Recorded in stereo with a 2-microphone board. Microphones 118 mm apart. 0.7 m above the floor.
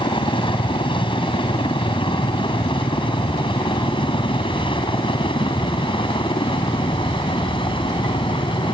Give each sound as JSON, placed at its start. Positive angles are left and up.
{"t": 0.0, "sound": "a helicopter", "side_deg": 45}